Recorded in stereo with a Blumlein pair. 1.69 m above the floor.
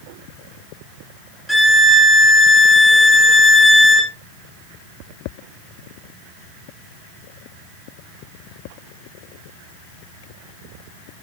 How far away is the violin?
About 1.9 m.